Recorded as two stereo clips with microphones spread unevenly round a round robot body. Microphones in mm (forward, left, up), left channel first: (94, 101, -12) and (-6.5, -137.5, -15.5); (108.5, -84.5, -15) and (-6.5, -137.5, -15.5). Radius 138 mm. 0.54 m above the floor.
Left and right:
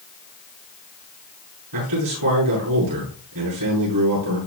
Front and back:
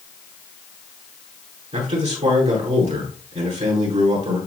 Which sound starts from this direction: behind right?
A man speaking, at 1.7 s.